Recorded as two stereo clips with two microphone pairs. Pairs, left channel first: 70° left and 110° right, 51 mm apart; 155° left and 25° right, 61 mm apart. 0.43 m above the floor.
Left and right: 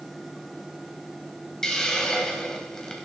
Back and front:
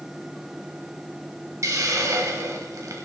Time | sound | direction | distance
1.6 | a hiss | 10° right | 1.8 m